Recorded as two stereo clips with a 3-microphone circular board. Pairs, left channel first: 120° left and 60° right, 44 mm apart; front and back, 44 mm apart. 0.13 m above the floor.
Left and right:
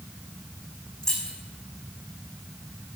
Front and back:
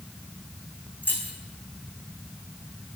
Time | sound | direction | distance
1.0 | keys jangling | 45° left | 4.5 m